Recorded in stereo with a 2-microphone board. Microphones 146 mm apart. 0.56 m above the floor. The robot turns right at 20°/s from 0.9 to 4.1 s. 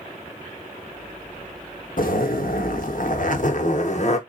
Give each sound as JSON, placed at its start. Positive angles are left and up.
{"t": 2.0, "sound": "a zipper", "azimuth_deg": 80, "distance_m": 0.7}